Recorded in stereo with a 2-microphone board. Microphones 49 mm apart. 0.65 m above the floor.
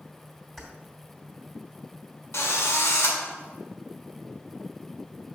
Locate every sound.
0.6 s keys jangling: 5° left (ahead or behind), 2.5 m
2.3 s a drill: 65° left (ahead or behind), 1.9 m